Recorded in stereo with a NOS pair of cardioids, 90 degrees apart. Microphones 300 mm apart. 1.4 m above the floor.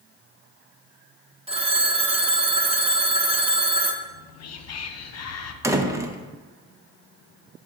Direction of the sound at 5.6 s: 10° right.